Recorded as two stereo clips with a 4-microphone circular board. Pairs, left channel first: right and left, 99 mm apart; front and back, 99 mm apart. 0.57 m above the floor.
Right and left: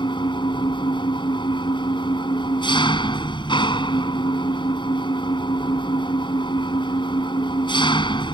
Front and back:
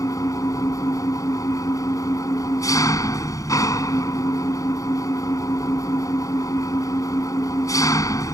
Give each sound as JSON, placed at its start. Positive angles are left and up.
{"t": 0.0, "sound": "an engine running", "azimuth_deg": -55}